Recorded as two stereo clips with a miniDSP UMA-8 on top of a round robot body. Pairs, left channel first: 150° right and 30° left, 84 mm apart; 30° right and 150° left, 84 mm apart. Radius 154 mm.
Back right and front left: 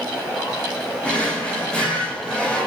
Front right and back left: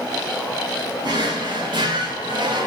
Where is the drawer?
135° left, 1.1 m.